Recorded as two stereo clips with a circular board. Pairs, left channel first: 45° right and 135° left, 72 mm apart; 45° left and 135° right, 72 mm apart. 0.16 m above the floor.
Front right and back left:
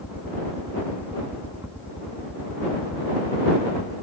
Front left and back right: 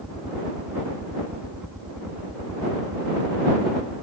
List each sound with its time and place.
0.0 s a helicopter: 160° left